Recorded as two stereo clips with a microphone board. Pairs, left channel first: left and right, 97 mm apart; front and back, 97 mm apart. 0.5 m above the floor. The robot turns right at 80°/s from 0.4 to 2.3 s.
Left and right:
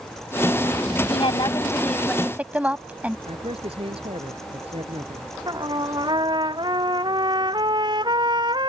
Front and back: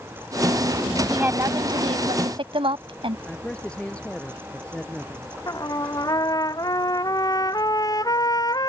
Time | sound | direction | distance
1.1 | a woman speaking | 100° left | ?
3.3 | a man speaking | 80° right | ?
5.5 | a trumpet | 50° right | ?